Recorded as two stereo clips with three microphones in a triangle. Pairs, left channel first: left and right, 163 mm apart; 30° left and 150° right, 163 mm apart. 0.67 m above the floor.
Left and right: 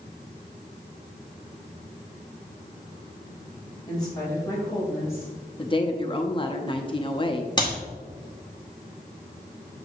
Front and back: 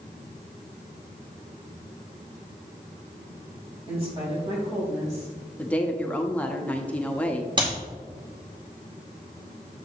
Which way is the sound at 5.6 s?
105° left.